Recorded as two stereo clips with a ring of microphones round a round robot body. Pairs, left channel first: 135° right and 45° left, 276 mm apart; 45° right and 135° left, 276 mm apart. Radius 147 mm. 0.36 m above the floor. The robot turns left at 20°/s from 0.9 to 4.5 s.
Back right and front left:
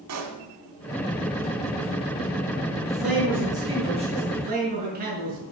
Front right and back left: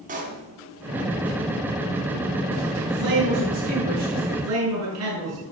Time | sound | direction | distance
0.1 | a pop | 75° left | 2 m
2.9 | a man speaking | 135° left | 6 m